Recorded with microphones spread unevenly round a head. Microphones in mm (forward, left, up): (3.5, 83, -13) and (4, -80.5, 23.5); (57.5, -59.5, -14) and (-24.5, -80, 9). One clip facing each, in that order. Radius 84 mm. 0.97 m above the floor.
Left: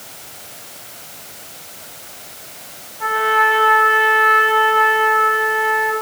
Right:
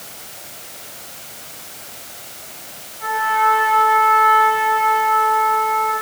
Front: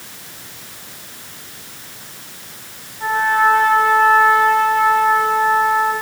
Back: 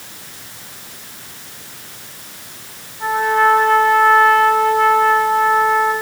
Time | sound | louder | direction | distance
3.0 | a trumpet | left 1 dB, back 1 dB | 105° left | 7.5 m